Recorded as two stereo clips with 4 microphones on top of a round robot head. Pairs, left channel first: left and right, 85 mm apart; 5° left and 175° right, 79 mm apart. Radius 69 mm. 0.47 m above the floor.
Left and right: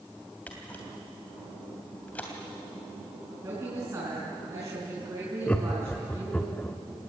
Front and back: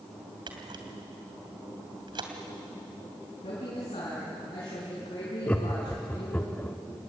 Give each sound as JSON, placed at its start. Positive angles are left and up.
{"t": 0.5, "sound": "a camera shutter", "azimuth_deg": 165, "distance_m": 3.0}
{"t": 3.4, "sound": "a woman speaking", "azimuth_deg": -30, "distance_m": 5.5}
{"t": 5.5, "sound": "laughter", "azimuth_deg": 40, "distance_m": 1.2}